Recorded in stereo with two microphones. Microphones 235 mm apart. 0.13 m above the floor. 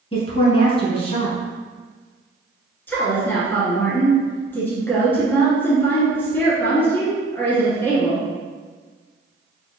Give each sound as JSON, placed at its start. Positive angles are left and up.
{"t": 0.1, "sound": "a woman speaking", "side_deg": 25, "distance_m": 1.3}
{"t": 2.9, "sound": "a woman speaking", "side_deg": 10, "distance_m": 1.6}